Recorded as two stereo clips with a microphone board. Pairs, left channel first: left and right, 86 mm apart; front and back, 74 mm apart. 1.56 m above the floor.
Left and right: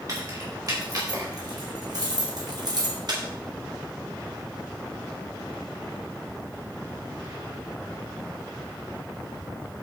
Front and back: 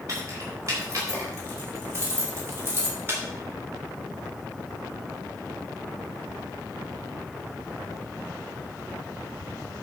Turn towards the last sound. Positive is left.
turn(degrees=-120)